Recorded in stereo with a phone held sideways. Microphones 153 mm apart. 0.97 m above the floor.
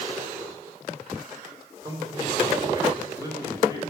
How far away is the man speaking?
About 3 m.